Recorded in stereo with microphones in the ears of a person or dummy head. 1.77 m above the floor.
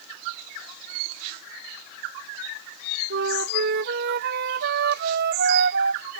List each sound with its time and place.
3.1 s a flute: 60° right (ahead or behind)